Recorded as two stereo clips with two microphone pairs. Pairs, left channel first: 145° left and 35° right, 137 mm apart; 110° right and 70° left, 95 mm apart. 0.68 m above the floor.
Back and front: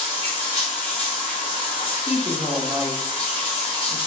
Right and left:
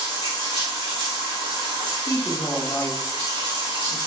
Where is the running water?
105° left, 1.7 m.